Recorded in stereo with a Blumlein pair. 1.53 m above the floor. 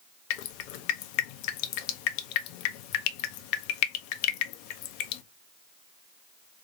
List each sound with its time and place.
0.3 s dripping: 45° left, 0.5 m